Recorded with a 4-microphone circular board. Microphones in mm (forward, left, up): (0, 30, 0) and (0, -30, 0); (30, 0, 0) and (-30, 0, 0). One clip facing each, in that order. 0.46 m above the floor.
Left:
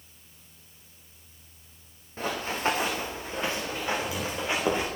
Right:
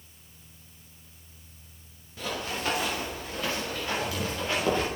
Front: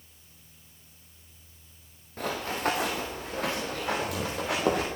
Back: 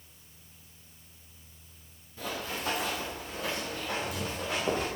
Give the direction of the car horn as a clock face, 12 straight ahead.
I don't hear a car horn.